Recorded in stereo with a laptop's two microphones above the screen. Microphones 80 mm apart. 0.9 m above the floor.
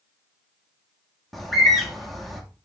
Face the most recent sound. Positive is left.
turn(degrees=0)  # may be behind; listen again after turning